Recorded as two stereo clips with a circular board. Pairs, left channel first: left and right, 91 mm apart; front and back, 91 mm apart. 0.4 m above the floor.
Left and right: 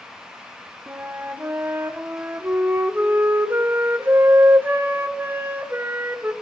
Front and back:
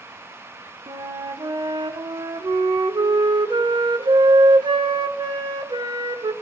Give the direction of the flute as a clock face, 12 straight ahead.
5 o'clock.